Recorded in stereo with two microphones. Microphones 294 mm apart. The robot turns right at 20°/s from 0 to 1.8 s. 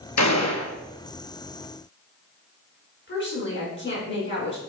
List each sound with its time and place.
0.2 s a gunshot: 70° left (ahead or behind), 0.7 m; by 0.7 s 60° left (ahead or behind), 0.7 m
3.1 s a woman speaking: 40° left (ahead or behind), 3 m